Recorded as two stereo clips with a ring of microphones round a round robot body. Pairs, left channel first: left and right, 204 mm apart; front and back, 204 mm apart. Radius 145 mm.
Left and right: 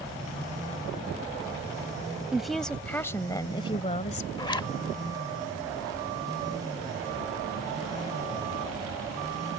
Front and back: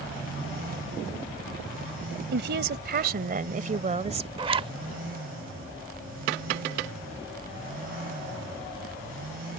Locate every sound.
2.3 s a woman speaking: 175° right; by 4.3 s 130° left
4.4 s a zipper: 140° left